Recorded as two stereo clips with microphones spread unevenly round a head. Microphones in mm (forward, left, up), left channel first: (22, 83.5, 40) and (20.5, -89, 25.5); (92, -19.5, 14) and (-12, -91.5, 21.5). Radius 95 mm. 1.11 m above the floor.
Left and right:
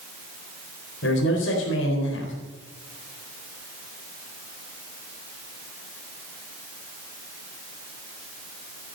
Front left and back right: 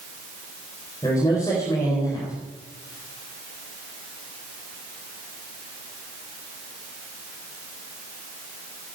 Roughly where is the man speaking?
Left.